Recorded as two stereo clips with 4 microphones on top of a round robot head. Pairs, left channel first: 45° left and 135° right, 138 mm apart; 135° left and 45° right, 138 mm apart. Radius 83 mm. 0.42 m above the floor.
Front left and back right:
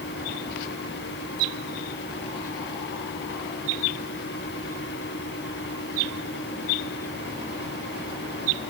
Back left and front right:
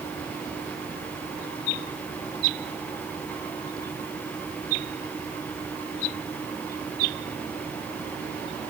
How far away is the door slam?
I don't hear a door slam.